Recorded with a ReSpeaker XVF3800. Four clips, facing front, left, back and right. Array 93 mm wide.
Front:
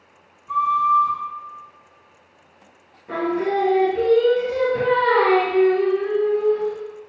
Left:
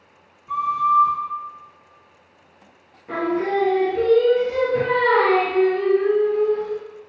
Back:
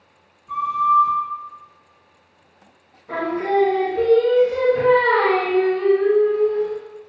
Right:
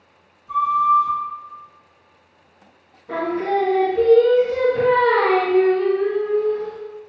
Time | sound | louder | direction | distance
0.5 | a flute | right 3 dB, front 1 dB | 90° left | 1.8 m
3.1 | singing | even, back 1 dB | 60° left | 1.7 m